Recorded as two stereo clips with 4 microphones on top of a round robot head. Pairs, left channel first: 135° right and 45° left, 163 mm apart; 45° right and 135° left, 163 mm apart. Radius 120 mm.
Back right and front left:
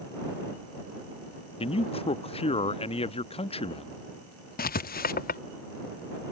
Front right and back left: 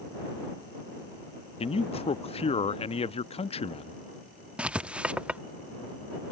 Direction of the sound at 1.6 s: 90° right.